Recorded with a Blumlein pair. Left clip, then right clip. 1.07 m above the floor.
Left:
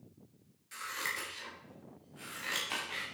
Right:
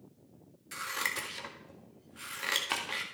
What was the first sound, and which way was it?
Scissors, 20° right.